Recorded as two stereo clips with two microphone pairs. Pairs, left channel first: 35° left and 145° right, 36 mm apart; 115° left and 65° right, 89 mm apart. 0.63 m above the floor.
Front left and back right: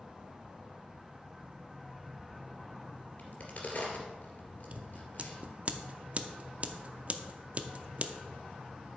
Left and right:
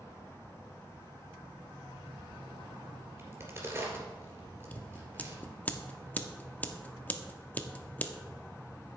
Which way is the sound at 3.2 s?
5° right.